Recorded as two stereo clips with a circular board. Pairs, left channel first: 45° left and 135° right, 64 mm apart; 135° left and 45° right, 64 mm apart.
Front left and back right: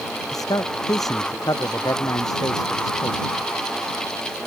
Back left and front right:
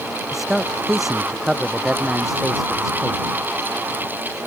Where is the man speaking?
40° left.